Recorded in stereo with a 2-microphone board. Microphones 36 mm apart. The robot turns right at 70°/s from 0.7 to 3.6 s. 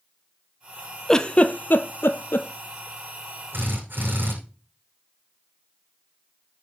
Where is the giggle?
10° left (ahead or behind), 1.1 m; by 2.5 s 70° left (ahead or behind), 1.1 m.